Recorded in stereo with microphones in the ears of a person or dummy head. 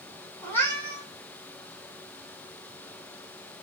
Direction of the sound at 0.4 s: 10° left (ahead or behind).